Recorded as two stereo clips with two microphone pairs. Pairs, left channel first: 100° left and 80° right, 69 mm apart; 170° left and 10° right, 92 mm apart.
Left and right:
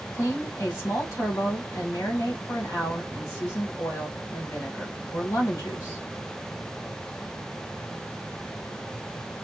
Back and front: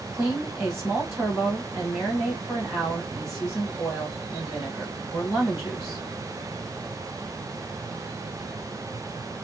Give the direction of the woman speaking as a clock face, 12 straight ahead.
10 o'clock.